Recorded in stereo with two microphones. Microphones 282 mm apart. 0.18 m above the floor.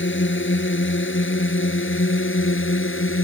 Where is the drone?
45° left (ahead or behind).